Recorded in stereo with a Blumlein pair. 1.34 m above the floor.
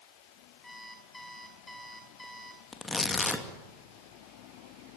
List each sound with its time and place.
0.6 s an alarm clock: 5° left, 5.5 m
2.7 s tearing paper: 10° left, 2.5 m